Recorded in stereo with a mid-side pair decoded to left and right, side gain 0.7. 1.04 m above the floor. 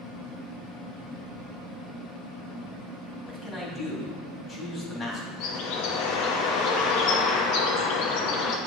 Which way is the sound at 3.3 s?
25° left.